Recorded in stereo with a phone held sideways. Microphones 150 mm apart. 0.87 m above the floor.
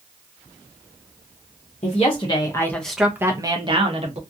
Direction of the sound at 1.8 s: 45° left (ahead or behind).